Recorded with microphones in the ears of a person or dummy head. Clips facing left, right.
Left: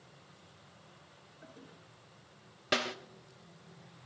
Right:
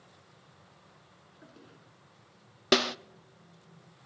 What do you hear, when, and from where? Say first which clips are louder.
1.4 s a toilet flushing: even; 35° right (ahead or behind), 4.5 m
2.7 s a snare drum: right 8 dB; 60° right (ahead or behind), 0.5 m